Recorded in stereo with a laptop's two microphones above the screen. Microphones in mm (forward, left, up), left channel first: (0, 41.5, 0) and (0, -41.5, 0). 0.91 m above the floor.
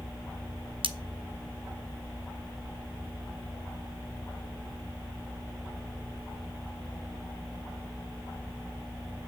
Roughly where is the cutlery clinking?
Right.